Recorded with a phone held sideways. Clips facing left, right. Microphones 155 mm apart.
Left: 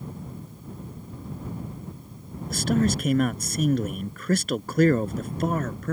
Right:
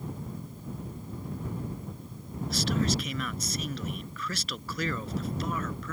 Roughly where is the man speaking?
Left.